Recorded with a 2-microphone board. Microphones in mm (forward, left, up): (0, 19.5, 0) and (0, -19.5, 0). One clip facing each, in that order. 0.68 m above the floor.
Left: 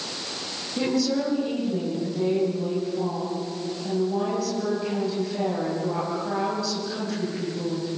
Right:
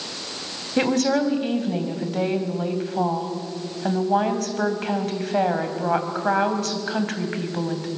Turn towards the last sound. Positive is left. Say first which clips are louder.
# right 4 dB
turn(degrees=-60)  # may be behind; listen again after turning